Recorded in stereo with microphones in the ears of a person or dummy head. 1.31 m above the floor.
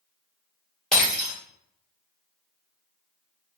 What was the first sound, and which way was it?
Breaking glass, 10° left (ahead or behind).